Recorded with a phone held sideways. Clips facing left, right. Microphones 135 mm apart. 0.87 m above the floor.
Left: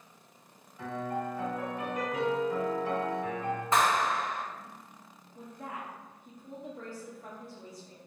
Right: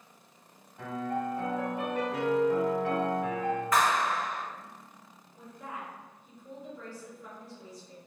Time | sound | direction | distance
0.8 | a piano | 70° right (ahead or behind) | 1.4 m
3.7 | a clap | 25° left (ahead or behind) | 0.6 m
5.3 | a woman speaking | 50° left (ahead or behind) | 0.6 m